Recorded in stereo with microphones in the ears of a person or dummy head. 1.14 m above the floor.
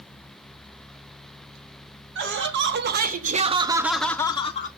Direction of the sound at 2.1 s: 55° right (ahead or behind).